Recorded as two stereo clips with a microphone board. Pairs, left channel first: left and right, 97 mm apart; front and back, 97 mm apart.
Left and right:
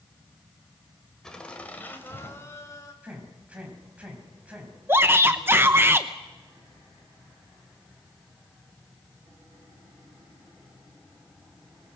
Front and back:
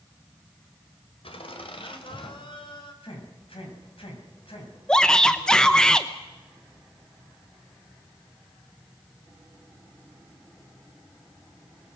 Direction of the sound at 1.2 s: 5° left.